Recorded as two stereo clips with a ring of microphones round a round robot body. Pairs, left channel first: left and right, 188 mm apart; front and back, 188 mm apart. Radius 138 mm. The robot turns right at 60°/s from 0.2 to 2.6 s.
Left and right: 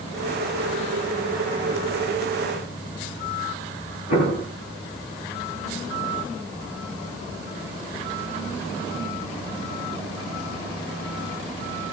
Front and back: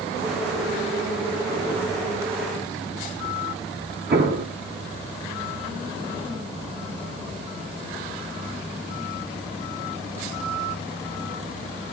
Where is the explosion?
150° left, 10 m.